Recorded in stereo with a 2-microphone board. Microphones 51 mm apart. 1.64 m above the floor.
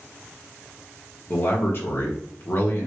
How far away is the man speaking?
About 1.1 m.